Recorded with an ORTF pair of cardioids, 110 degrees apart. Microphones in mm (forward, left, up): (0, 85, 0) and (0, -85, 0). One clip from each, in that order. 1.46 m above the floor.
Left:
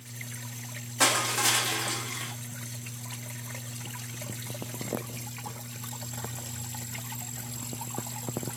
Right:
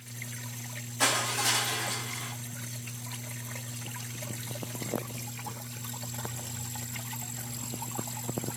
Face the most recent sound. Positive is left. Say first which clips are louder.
# left 3 dB
turn(degrees=25)